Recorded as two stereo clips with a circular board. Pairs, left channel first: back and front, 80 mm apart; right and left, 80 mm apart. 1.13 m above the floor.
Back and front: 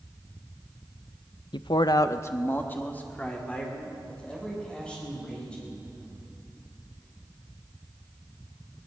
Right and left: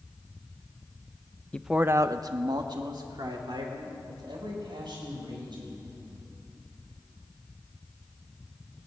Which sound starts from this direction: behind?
A man speaking, at 1.5 s.